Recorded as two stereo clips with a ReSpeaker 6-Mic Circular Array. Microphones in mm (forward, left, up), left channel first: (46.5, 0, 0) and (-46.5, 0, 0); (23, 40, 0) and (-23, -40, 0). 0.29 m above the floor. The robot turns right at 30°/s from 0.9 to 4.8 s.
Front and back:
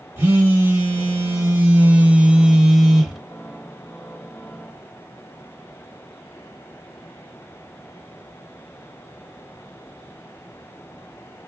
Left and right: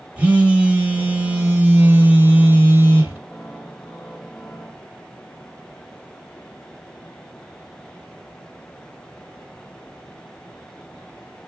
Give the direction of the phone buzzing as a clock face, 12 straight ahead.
6 o'clock.